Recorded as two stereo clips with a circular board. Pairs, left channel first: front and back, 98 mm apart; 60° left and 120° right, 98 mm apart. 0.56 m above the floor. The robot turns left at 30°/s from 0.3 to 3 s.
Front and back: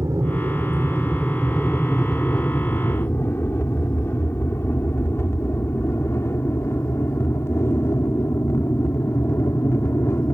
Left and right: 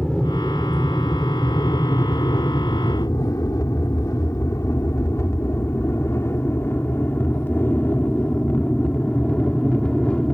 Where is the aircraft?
140° left; by 10.3 s 10° right.